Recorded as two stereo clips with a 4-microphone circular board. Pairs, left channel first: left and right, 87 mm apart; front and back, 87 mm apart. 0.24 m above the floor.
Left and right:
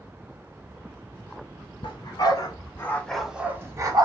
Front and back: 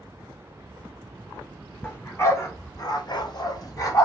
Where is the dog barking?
65° left, 1.1 m; by 4.0 s 50° right, 0.8 m.